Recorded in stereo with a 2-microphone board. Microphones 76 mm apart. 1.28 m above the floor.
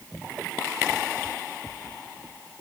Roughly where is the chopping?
I don't hear chopping.